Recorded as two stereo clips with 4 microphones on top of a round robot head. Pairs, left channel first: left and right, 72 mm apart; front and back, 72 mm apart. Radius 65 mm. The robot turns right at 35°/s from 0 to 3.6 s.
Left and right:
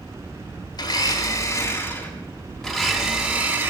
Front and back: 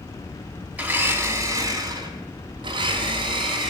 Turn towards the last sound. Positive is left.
turn(degrees=-150)